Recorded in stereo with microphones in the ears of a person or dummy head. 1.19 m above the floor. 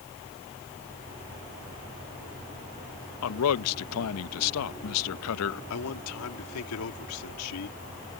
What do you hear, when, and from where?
3.2 s a man speaking: 85° left
5.7 s a man speaking: 80° left